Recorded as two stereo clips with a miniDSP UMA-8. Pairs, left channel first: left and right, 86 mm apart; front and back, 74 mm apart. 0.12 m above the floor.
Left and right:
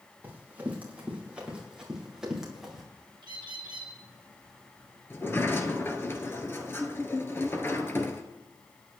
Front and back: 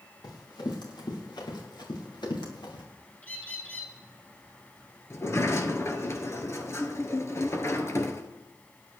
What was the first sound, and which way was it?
Running footsteps, 20° right.